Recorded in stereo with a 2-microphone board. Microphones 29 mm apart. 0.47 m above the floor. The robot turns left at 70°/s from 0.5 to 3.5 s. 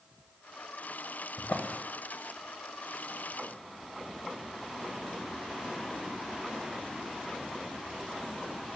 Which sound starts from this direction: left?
A drawer, at 1.4 s.